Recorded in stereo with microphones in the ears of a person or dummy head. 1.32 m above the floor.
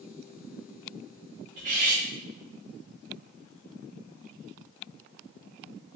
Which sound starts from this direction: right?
Cutlery clinking, at 1.6 s.